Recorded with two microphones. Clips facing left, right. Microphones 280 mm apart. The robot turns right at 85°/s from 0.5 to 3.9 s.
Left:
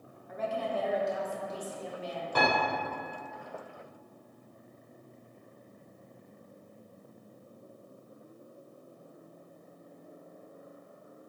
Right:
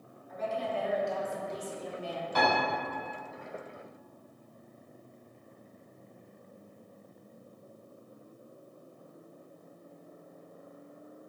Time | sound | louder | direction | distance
0.3 | a woman speaking | left 1 dB | 110° left | 0.7 m
2.4 | a piano | even | 55° left (ahead or behind) | 1.6 m